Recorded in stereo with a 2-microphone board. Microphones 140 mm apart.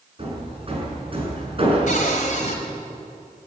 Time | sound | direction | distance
0.2 | hammering | 40° right (ahead or behind) | 5.5 m
1.9 | a cupboard door | 65° left (ahead or behind) | 3.5 m